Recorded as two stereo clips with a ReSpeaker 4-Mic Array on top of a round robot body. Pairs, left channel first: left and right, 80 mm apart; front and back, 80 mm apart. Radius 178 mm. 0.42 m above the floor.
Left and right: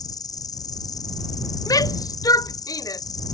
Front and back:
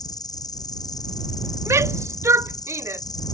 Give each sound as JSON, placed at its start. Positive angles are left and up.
{"t": 0.0, "sound": "an insect", "azimuth_deg": 45}
{"t": 1.7, "sound": "a shout", "azimuth_deg": 125}